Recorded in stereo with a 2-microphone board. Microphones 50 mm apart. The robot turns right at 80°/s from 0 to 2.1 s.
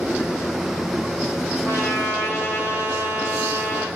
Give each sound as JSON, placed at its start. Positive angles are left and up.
{"t": 1.6, "sound": "a trumpet", "azimuth_deg": 80, "distance_m": 3.5}